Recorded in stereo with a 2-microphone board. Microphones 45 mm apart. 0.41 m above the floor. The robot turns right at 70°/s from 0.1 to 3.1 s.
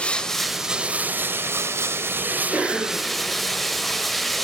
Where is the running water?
155° left, 0.7 m; by 4.5 s 5° left, 0.7 m.